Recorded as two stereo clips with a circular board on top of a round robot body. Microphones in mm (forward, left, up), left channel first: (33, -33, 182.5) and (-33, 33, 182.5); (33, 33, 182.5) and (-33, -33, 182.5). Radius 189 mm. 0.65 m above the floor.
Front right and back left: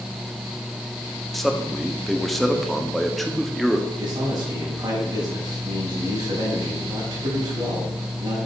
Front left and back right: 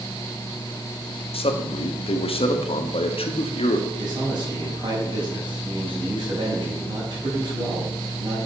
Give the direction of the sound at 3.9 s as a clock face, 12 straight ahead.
6 o'clock.